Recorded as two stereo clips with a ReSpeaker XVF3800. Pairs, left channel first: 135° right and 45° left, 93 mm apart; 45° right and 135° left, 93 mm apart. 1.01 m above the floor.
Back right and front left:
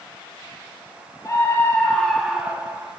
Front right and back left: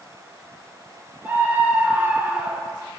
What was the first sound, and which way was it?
A scream, 165° right.